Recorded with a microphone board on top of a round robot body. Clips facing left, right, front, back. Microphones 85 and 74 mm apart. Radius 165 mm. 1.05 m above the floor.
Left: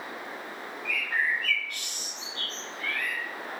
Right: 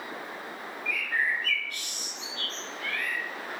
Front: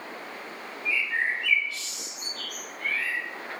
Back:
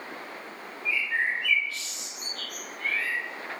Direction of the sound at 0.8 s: 65° left.